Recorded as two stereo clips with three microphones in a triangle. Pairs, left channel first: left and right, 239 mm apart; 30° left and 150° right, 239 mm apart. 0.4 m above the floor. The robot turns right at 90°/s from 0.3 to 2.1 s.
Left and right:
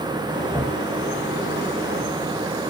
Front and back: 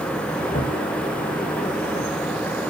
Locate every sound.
0.5 s knocking: 5° left, 2.5 m; by 0.8 s 35° left, 2.5 m